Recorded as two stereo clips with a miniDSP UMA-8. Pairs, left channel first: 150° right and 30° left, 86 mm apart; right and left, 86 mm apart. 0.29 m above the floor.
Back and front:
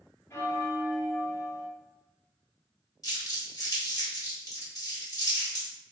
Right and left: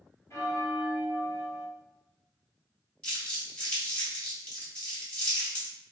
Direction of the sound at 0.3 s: 125° right.